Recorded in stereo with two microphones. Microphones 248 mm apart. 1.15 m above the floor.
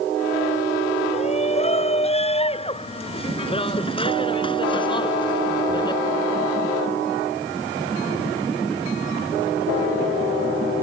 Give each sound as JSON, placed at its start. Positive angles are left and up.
{"t": 1.1, "sound": "a shout", "side_deg": 25}